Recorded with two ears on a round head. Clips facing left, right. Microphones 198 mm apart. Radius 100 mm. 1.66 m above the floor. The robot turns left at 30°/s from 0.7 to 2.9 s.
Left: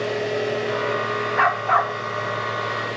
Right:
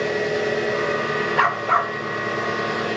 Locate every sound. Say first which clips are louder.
0.0 s an engine running: right 1 dB; 25° right, 9 m; by 3.0 s 90° right, 9 m
1.4 s a dog barking: left 1 dB; 45° right (ahead or behind), 1.8 m; by 2.0 s 35° right (ahead or behind), 1.8 m